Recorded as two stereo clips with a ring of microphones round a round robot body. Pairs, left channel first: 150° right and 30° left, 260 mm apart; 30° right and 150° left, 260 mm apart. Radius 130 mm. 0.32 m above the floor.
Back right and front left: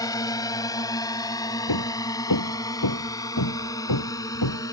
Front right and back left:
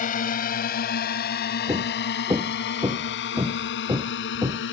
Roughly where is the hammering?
Behind right.